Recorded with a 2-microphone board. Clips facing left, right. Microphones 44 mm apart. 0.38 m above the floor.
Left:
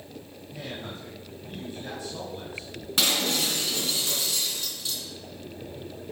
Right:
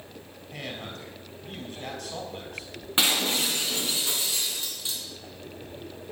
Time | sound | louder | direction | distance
0.5 | a man speaking | even | 65° right (ahead or behind) | 3 m
3.0 | breaking glass | right 1 dB | 25° right (ahead or behind) | 2.5 m